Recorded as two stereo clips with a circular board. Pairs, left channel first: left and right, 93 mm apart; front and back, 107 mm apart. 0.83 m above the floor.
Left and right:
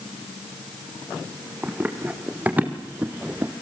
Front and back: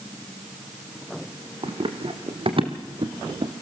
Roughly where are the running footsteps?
Behind.